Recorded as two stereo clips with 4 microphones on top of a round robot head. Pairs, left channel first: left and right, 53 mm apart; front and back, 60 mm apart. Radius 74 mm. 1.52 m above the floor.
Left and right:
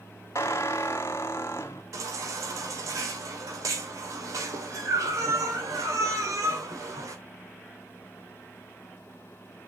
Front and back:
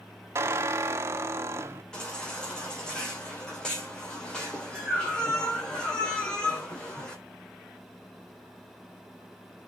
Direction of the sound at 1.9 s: 75° right.